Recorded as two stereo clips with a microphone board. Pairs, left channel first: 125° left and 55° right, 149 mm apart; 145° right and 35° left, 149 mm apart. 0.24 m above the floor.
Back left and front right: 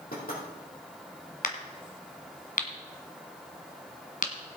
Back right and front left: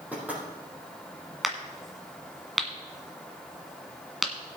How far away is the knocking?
About 6 m.